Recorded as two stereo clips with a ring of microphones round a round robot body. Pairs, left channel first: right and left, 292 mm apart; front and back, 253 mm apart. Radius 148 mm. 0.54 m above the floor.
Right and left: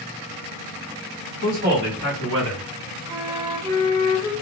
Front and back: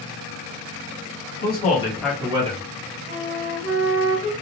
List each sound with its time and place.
1.4 s a man speaking: 30° left, 1.5 m; by 2.6 s 125° left, 1.5 m
3.1 s a flute: 165° left, 1.2 m